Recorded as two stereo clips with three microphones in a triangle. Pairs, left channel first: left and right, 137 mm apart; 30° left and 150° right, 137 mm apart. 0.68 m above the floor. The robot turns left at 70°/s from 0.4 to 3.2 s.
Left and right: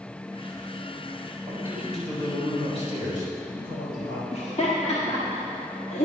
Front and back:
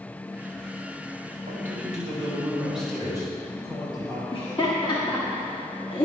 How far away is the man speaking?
About 3.5 m.